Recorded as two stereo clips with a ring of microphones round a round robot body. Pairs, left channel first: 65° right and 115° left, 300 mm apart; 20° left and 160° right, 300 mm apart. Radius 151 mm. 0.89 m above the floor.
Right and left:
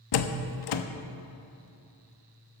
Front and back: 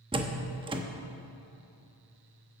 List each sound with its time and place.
0.1 s a door slam: 80° right, 0.9 m